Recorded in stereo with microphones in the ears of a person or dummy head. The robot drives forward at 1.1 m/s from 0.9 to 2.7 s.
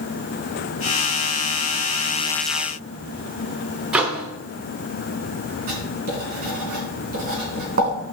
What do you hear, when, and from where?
3.9 s a microwave: 5° right (ahead or behind), 0.7 m
5.7 s writing: 40° right (ahead or behind), 2.5 m